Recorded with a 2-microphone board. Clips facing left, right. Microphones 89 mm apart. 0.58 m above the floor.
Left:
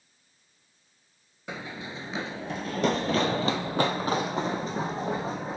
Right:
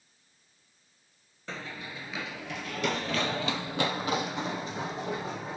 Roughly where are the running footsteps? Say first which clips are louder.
Left 3 dB; centre.